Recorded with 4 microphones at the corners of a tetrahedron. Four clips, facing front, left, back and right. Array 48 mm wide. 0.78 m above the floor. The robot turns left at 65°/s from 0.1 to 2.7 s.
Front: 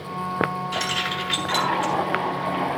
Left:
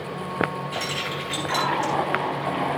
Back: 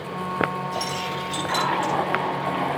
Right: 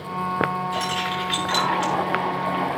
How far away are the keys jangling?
About 7 m.